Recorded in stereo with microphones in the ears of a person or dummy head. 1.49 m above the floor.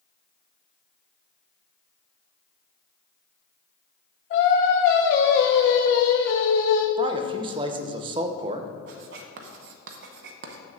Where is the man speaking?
20° right (ahead or behind), 0.5 m.